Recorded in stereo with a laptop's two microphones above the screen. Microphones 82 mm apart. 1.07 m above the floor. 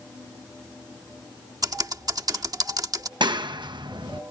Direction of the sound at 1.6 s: 50° right (ahead or behind).